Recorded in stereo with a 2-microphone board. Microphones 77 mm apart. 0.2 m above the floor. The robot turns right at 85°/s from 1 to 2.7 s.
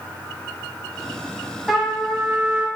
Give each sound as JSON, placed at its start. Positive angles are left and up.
{"t": 1.7, "sound": "a trumpet", "side_deg": -5, "distance_m": 1.5}